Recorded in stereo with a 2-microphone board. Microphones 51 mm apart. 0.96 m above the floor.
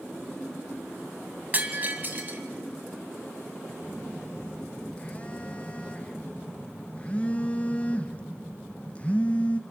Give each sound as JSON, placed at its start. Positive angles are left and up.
{"t": 1.5, "sound": "breaking glass", "side_deg": -35, "distance_m": 1.5}
{"t": 3.8, "sound": "a phone buzzing", "side_deg": 25, "distance_m": 0.8}